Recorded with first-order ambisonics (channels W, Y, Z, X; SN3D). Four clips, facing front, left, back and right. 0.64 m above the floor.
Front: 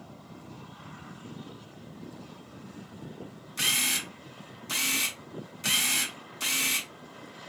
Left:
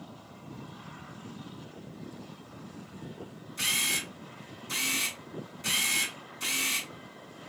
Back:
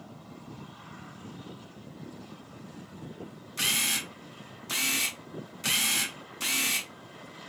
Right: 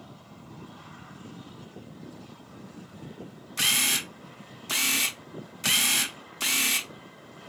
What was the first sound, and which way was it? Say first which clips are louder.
A camera shutter: right 4 dB, front 1 dB; 90° right.